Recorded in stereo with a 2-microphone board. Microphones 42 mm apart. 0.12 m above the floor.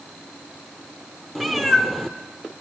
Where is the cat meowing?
Centre (ahead or behind), 0.6 m.